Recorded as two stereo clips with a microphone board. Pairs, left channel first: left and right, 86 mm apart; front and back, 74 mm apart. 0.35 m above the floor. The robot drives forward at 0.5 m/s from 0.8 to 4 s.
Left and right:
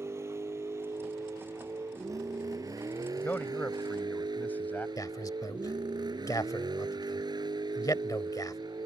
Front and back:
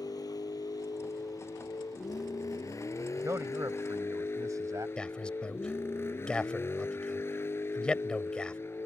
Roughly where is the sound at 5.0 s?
Left.